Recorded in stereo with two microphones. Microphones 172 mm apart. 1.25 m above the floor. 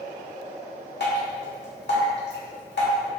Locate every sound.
1.0 s dripping: 80° left, 1.6 m